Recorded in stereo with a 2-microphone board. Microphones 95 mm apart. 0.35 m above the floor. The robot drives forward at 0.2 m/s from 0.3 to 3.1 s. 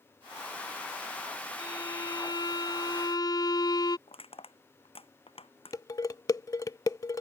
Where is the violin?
50° left (ahead or behind); by 4.0 s 45° left (ahead or behind).